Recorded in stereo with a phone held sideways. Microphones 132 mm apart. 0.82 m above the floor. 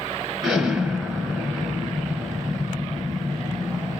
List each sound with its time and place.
0.4 s an explosion: 5° right (ahead or behind), 4 m